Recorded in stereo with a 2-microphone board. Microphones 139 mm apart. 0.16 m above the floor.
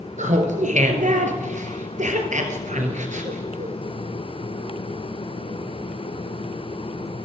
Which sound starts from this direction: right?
Laughter, at 0.2 s.